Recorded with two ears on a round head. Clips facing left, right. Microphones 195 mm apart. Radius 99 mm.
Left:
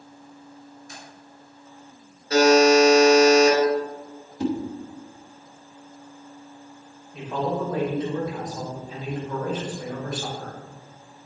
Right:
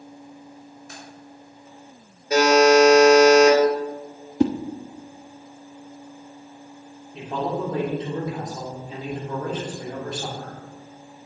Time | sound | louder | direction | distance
0.9 | keys jangling | right 4 dB | 45° right (ahead or behind) | 2.5 m
2.3 | a buzzer | even | 15° right (ahead or behind) | 3 m
4.4 | a whoosh | right 5 dB | 50° right (ahead or behind) | 0.6 m
7.1 | a man speaking | even | 25° right (ahead or behind) | 3 m